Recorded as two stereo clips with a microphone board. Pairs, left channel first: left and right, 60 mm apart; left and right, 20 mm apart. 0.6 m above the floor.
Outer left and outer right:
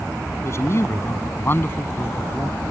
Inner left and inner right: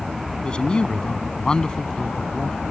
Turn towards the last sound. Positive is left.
turn(degrees=30)  # may be behind; listen again after turning